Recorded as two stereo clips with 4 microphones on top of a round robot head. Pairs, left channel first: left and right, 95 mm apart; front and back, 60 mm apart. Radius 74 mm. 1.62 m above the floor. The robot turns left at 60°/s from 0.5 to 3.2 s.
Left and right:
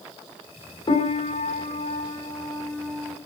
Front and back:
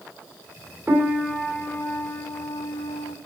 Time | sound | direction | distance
0.9 | a piano | 120° left | 2.5 m